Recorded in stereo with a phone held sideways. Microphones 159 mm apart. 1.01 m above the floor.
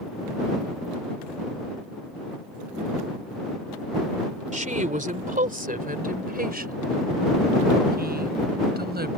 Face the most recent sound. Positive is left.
turn(degrees=-80)